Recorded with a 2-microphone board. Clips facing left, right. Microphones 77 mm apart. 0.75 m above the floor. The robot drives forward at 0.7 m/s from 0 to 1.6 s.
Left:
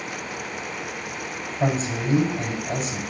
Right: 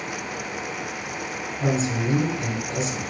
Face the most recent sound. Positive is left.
turn(degrees=55)  # may be behind; listen again after turning